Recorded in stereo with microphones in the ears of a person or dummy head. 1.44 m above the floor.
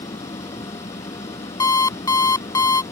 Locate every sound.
0.0 s an engine running: 20° left (ahead or behind)
1.6 s an alarm clock: 25° left (ahead or behind)